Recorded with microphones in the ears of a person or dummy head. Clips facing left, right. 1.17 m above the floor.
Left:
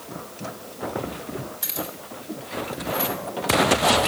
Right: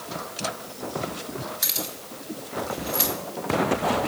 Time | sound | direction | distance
1.6 | keys jangling | 25° right (ahead or behind) | 1.8 m